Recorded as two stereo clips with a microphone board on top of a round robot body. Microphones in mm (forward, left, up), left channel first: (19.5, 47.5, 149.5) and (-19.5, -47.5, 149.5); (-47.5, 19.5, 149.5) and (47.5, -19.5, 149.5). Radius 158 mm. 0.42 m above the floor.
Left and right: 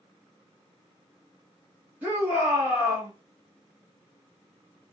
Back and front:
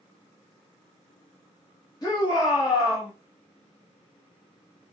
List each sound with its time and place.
2.0 s a shout: 175° right, 1.4 m